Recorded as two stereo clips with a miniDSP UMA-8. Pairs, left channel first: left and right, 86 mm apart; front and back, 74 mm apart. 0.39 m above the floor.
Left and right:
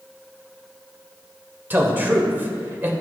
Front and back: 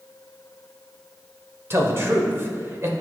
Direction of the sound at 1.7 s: 145° right.